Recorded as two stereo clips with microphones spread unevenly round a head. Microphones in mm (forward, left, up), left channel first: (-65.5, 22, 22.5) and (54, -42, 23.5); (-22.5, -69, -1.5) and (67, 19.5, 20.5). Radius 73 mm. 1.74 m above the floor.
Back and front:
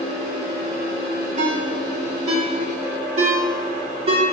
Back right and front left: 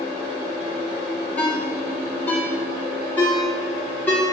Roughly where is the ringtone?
Ahead right.